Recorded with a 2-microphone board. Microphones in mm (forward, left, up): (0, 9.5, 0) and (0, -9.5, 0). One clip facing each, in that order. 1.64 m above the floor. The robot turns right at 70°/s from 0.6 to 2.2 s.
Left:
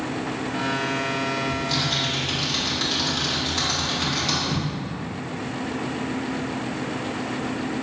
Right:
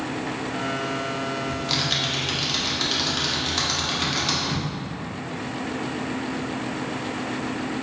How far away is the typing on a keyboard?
About 0.6 m.